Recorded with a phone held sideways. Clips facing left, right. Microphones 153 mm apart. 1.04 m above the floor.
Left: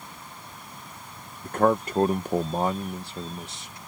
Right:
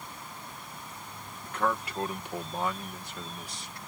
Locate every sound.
1.4 s a man speaking: 45° left (ahead or behind); by 3.8 s 20° left (ahead or behind)